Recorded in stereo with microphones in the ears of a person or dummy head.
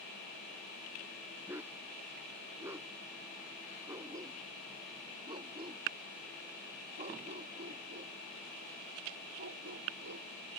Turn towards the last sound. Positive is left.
turn(degrees=-60)  # may be behind; listen again after turning